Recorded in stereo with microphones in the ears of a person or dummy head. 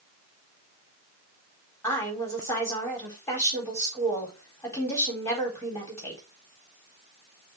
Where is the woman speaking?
15° left (ahead or behind), 4 m.